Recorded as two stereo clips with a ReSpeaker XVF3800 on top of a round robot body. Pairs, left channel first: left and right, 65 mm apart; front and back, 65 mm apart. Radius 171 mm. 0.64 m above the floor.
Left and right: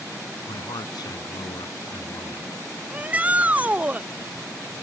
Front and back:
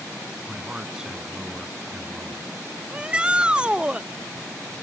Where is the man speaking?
100° left.